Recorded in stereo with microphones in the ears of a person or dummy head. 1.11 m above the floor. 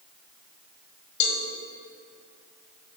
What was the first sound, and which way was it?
A cowbell, 40° left (ahead or behind).